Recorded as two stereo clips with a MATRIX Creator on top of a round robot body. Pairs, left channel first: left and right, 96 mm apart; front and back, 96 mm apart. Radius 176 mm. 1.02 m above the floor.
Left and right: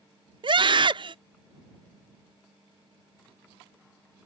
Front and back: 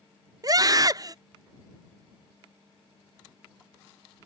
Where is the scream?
130° right.